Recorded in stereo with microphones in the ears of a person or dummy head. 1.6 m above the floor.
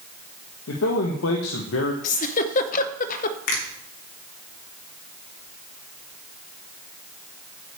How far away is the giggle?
About 0.7 m.